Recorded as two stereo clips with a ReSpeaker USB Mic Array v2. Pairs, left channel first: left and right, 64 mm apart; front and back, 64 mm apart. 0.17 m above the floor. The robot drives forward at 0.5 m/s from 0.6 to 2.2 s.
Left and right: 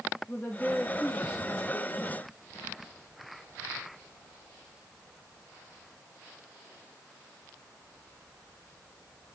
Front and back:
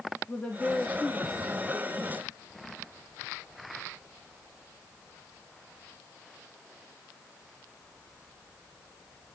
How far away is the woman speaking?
About 1.5 m.